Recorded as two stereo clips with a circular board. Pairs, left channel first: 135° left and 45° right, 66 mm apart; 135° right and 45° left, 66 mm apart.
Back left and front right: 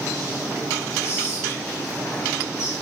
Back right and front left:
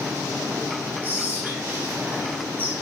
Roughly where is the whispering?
Left.